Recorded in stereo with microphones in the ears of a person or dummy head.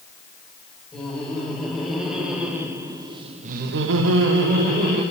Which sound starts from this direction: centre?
Laughter, at 0.9 s.